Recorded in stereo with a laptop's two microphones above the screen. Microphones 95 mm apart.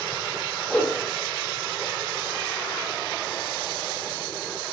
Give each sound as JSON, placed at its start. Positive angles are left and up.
{"t": 0.7, "sound": "a whoosh", "side_deg": 10, "distance_m": 0.6}